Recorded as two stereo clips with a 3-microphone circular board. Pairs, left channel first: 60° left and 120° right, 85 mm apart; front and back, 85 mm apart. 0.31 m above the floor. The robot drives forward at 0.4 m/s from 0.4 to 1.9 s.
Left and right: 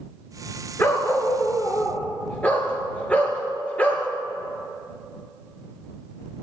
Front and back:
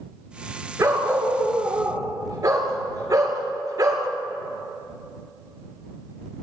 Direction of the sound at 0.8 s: 125° left.